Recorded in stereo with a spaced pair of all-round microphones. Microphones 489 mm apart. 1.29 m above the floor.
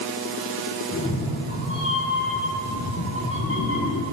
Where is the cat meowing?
25° left (ahead or behind), 5 m.